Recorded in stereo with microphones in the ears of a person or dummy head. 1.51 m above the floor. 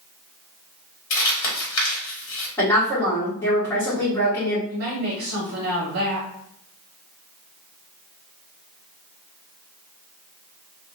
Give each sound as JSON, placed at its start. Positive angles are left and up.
{"t": 1.1, "sound": "crumpling", "side_deg": 70, "distance_m": 1.3}
{"t": 2.6, "sound": "a woman speaking", "side_deg": 15, "distance_m": 1.3}
{"t": 4.7, "sound": "a woman speaking", "side_deg": -50, "distance_m": 1.0}